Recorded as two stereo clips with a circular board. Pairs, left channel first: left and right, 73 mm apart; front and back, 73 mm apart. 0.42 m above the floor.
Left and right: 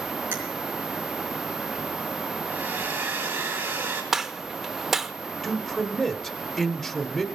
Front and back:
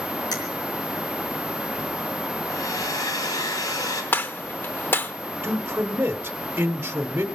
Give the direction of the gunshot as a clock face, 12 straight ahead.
12 o'clock.